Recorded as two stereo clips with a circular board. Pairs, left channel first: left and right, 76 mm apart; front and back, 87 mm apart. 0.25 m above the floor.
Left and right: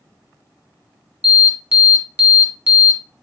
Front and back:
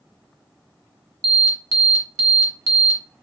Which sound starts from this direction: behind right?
An alarm, at 1.2 s.